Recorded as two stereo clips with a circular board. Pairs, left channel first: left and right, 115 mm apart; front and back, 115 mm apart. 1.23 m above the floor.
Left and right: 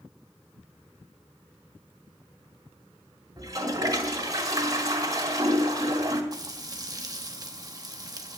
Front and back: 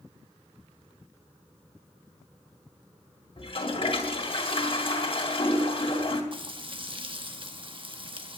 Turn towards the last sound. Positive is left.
turn(degrees=-145)